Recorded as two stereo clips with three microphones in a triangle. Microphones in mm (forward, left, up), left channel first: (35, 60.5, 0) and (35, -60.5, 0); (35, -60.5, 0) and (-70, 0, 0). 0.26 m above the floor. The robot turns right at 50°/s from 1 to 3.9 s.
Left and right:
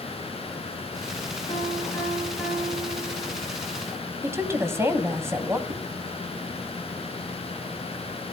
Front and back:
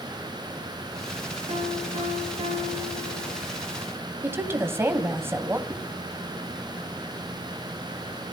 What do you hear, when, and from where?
1.5 s a piano: 130° left, 3.5 m; by 3.4 s 130° right, 3.5 m
4.2 s a woman speaking: 150° right, 1.7 m
5.7 s a whoosh: 140° right, 5 m